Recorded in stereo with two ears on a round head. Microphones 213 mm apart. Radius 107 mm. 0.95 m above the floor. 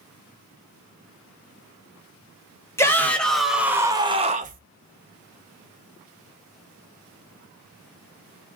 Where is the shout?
10° left (ahead or behind), 1.2 m; by 4.6 s 40° right (ahead or behind), 0.8 m.